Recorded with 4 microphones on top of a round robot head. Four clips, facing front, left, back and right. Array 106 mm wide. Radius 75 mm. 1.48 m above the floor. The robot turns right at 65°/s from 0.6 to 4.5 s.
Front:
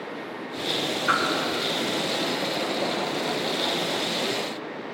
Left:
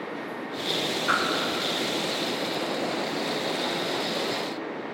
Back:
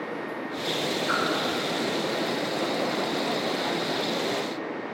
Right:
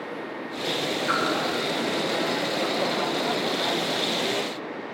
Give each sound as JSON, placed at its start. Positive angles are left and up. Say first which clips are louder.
{"t": 1.1, "sound": "a whoosh", "louder": "left 1 dB, front 5 dB", "azimuth_deg": 15, "distance_m": 2.0}